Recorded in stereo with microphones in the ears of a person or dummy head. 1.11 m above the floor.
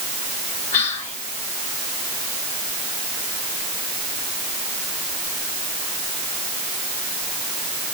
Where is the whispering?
40° left (ahead or behind), 4 m.